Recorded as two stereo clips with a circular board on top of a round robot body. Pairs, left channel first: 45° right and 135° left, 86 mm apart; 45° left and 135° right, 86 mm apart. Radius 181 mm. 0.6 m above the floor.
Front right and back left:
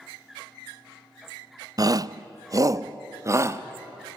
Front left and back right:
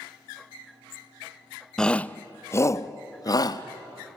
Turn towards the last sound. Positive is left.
turn(degrees=80)